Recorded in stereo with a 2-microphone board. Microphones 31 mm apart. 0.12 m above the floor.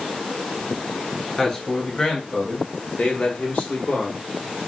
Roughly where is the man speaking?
Centre.